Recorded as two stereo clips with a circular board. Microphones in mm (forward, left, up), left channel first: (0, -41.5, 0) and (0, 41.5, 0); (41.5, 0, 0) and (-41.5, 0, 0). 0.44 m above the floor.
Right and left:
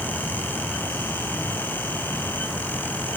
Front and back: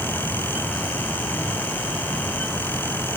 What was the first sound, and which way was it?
Only background noise.